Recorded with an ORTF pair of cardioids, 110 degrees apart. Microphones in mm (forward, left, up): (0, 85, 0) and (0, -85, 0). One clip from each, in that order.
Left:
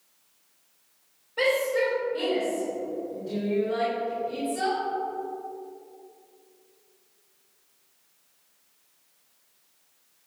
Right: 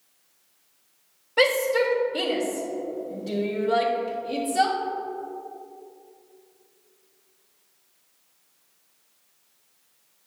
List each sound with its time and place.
1.4 s a shout: 60° right, 3 m